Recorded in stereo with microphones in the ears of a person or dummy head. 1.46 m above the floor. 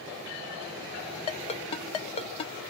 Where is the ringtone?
30° left (ahead or behind), 1.4 m.